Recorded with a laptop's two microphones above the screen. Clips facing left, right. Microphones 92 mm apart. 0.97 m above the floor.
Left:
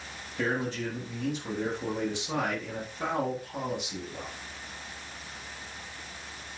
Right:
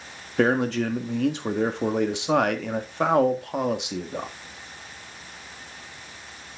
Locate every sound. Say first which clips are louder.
0.4 s a man speaking: right 9 dB; 75° right (ahead or behind), 1.4 m